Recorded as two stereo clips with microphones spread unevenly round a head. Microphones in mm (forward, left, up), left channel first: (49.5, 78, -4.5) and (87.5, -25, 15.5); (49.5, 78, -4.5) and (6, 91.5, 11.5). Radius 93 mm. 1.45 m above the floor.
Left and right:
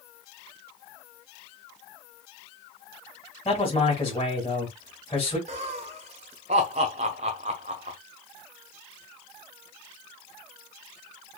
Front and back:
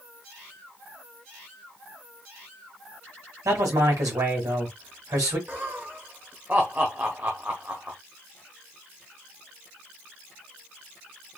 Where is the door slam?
No door slam in this recording.